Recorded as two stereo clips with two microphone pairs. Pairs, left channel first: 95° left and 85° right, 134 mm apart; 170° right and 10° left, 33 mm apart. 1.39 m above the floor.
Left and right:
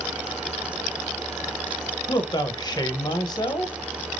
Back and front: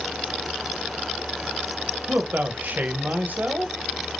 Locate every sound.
2.1 s a man speaking: 40° left, 0.7 m